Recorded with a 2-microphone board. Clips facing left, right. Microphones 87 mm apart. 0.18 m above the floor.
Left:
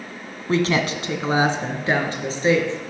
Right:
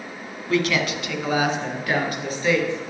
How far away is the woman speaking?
About 1.2 m.